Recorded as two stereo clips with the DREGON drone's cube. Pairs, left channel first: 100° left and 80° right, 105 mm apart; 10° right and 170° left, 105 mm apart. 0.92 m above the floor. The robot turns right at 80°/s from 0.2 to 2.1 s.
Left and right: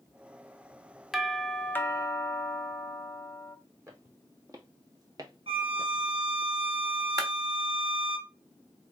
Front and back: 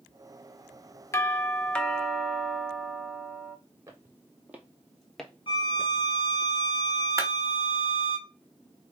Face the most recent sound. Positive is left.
turn(degrees=-130)